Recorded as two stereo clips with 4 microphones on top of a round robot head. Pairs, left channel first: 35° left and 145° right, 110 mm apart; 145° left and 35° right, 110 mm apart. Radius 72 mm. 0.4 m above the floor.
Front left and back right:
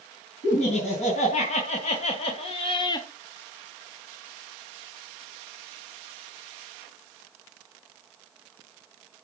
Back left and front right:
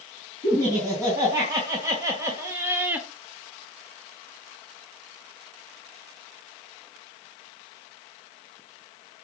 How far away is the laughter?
About 5 m.